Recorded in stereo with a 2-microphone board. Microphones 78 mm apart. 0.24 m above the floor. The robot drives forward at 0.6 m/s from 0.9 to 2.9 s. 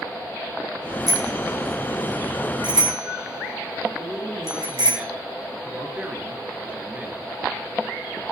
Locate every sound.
1.1 s a bicycle bell: 65° right (ahead or behind), 5 m; by 5.0 s 75° right (ahead or behind), 5 m
4.0 s a man speaking: 20° right (ahead or behind), 3.5 m